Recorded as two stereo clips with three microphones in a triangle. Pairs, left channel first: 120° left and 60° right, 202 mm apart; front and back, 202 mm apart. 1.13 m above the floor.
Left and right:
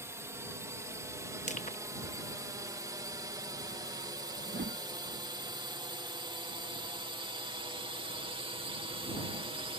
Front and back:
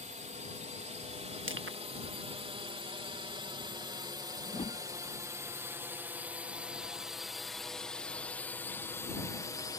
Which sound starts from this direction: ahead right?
A whoosh, at 4.5 s.